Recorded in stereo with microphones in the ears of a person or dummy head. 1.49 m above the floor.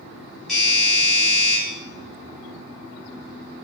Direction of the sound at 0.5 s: Centre (ahead or behind).